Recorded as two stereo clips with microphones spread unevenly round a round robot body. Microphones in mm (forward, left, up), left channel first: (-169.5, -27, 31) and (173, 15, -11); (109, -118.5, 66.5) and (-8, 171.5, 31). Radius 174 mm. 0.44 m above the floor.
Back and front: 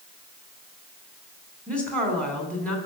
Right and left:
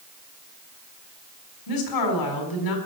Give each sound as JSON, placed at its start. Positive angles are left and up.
{"t": 1.7, "sound": "a woman speaking", "azimuth_deg": -85, "distance_m": 4.5}